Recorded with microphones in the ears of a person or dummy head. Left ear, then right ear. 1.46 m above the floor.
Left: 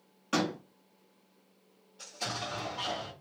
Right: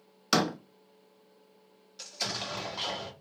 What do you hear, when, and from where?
0.3 s a door slam: 70° right (ahead or behind), 0.6 m
2.0 s an explosion: 55° right (ahead or behind), 1.4 m